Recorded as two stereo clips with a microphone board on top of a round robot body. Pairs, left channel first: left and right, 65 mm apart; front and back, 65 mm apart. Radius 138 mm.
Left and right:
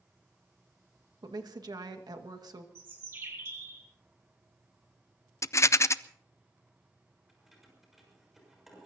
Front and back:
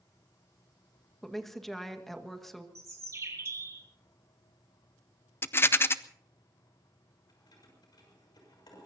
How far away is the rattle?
About 0.7 m.